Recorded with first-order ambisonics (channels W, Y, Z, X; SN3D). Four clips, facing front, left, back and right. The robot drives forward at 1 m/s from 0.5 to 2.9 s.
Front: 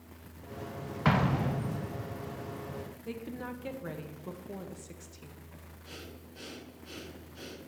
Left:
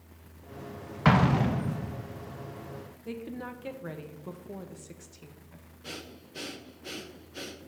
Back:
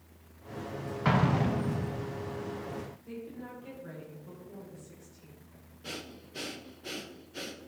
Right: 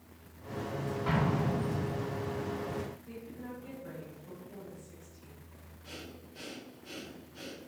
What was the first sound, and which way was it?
An explosion, 80° left.